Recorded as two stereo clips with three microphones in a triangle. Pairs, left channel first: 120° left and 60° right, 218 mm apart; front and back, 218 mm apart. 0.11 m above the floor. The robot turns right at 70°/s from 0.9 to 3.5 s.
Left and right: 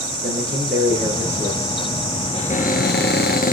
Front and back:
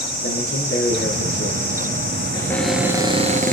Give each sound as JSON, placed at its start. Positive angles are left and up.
{"t": 0.2, "sound": "a man speaking", "azimuth_deg": -15, "distance_m": 5.0}
{"t": 2.3, "sound": "a cupboard door", "azimuth_deg": 65, "distance_m": 1.2}